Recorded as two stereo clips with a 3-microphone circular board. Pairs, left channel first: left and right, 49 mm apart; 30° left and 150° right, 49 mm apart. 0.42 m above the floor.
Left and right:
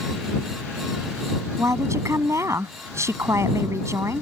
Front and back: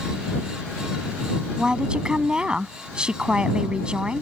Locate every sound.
1.6 s a woman speaking: 75° right